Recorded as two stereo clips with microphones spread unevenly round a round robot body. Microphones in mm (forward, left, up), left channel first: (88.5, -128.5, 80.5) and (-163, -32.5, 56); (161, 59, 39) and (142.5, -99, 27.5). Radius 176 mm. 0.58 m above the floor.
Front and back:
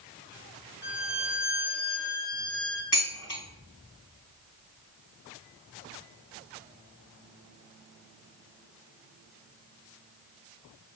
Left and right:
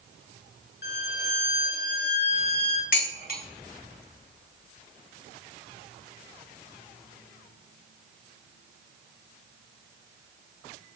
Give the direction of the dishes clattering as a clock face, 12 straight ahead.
10 o'clock.